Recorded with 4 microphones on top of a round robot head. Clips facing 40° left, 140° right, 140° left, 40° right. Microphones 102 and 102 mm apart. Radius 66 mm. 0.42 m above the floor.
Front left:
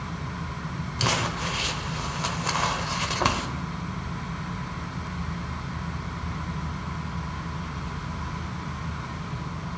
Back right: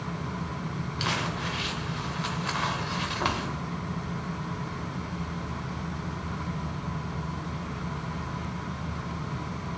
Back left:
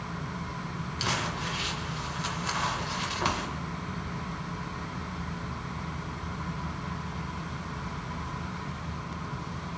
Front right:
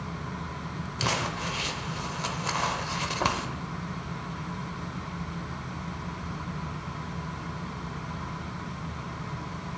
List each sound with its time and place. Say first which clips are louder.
1.0 s crumpling: front left 4 dB, front right 2 dB; 5° right, 1.0 m